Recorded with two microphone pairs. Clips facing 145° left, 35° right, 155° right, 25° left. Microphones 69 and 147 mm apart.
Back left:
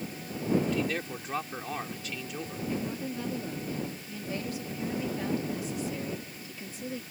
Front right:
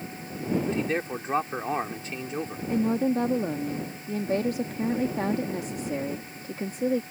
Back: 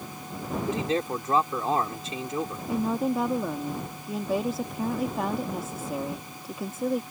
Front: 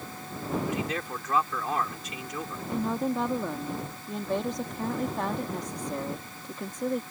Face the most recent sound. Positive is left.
turn(degrees=-70)